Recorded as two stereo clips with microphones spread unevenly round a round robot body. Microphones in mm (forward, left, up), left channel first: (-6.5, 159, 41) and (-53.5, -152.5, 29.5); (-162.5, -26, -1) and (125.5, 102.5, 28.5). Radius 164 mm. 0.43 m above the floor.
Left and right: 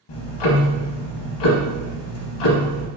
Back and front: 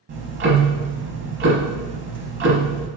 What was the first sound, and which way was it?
Ticking, 80° left.